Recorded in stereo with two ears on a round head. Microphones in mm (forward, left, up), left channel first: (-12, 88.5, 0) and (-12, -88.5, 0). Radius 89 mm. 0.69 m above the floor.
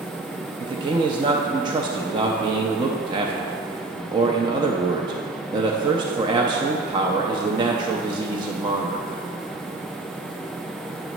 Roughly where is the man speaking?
Right.